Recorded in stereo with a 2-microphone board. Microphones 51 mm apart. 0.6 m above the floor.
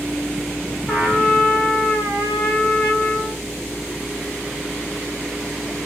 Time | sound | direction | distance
0.9 | a trumpet | centre (ahead or behind) | 2.5 m